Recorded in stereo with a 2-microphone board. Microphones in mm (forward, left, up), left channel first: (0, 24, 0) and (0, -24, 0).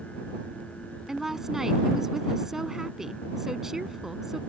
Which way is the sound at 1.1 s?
10° right (ahead or behind).